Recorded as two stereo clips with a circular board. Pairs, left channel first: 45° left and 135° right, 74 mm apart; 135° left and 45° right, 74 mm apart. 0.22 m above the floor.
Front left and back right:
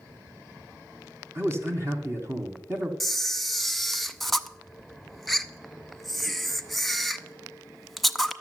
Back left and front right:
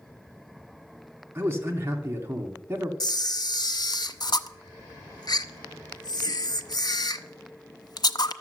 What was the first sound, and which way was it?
A man speaking, 95° right.